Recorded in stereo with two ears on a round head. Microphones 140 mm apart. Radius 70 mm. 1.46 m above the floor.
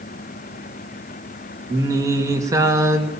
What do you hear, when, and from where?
1.7 s singing: 20° right (ahead or behind), 2.5 m